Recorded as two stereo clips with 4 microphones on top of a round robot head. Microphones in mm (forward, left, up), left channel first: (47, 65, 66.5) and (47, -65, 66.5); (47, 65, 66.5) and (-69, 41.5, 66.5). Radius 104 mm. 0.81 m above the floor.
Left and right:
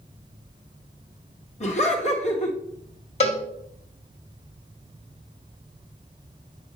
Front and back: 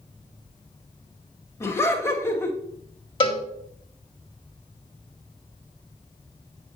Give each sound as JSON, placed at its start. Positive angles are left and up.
{"t": 1.6, "sound": "laughter", "azimuth_deg": 75, "distance_m": 2.0}
{"t": 3.2, "sound": "a cowbell", "azimuth_deg": 55, "distance_m": 2.0}